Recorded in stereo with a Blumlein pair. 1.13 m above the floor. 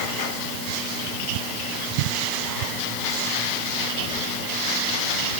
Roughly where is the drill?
No drill in this recording.